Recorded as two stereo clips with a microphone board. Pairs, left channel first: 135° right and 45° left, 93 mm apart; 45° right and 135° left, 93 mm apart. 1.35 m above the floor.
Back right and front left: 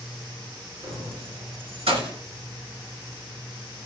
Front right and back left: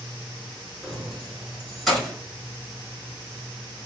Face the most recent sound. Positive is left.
turn(degrees=40)